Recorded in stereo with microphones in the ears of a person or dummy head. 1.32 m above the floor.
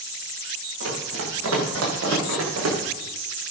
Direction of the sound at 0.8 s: 80° right.